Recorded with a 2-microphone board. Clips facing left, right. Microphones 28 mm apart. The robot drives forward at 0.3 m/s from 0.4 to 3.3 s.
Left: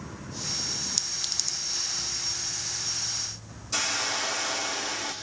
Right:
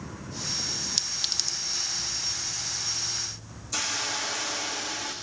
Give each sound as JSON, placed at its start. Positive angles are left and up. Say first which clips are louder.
{"t": 1.0, "sound": "a clink", "louder": "right 5 dB", "side_deg": -25, "distance_m": 0.7}
{"t": 3.7, "sound": "a hiss", "louder": "left 2 dB", "side_deg": 55, "distance_m": 7.0}